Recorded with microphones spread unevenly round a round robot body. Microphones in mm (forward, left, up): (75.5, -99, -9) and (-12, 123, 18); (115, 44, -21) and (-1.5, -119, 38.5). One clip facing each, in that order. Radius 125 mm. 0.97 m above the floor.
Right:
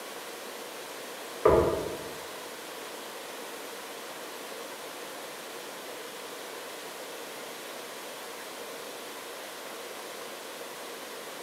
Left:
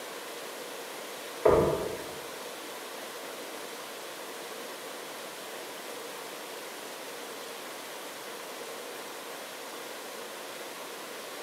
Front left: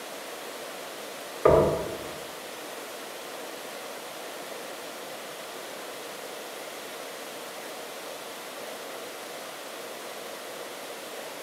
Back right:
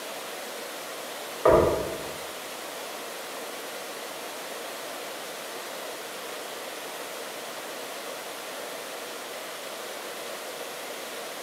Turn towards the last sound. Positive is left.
turn(degrees=5)